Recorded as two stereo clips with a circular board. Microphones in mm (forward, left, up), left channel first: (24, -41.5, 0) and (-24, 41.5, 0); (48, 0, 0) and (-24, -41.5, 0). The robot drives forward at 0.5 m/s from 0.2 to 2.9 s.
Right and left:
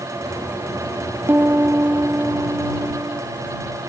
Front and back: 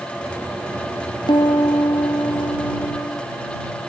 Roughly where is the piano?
Ahead left.